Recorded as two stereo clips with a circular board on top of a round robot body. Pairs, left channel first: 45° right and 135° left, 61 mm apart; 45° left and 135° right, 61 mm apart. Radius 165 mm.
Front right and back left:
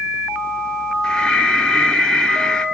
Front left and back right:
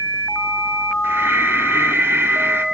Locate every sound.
1.0 s breathing: 115° right, 1.4 m